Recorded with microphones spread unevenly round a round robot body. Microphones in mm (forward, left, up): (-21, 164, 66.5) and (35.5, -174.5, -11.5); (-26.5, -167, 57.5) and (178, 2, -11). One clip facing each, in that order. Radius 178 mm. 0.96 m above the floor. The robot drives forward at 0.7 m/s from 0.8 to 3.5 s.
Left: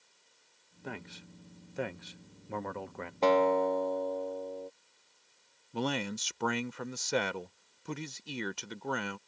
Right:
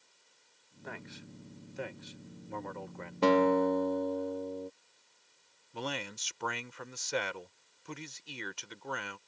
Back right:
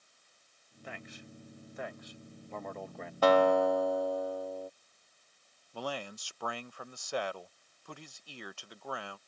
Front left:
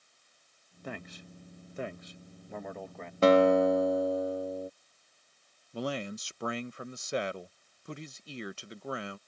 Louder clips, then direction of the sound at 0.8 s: Left 3 dB, front left 5 dB; 45° left.